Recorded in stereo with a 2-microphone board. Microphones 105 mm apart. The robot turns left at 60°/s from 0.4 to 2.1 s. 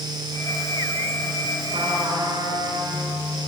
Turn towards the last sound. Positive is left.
turn(degrees=-40)  # may be behind; listen again after turning